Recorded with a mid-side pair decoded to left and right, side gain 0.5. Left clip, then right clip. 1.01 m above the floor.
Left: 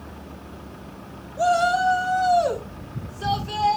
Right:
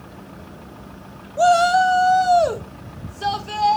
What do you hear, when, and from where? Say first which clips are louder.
1.4 s a shout: right 5 dB; 45° right, 1.0 m; by 3.8 s 25° right, 3 m